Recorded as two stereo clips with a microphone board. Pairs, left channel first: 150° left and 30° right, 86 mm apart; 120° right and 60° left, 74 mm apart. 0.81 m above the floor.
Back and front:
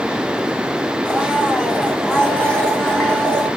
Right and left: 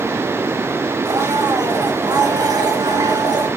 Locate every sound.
1.1 s a blender: 70° left, 1.9 m